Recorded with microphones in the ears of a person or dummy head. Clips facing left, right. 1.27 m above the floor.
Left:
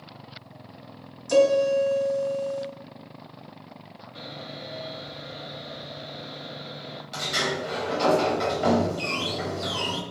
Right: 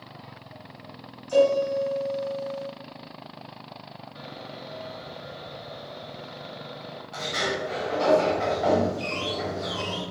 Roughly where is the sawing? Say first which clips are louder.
Left 2 dB; left.